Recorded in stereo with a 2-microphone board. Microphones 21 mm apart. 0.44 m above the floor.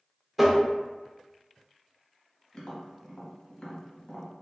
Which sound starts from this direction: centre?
Tapping, at 0.4 s.